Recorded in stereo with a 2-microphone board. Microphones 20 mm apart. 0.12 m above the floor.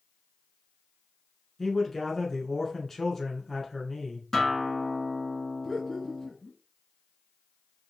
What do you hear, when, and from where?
1.6 s a man speaking: 15° left (ahead or behind), 1.2 m
4.3 s a guitar: 10° left (ahead or behind), 1.2 m
5.6 s laughter: 15° left (ahead or behind), 1.9 m